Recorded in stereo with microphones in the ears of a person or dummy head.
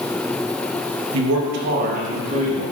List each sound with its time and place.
1.1 s a man speaking: 85° right, 1.1 m; by 2.6 s 35° right (ahead or behind), 1.6 m